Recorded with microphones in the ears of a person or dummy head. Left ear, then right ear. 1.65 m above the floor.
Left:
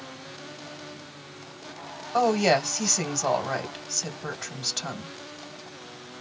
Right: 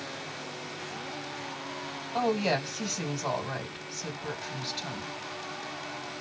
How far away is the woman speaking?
About 1.5 m.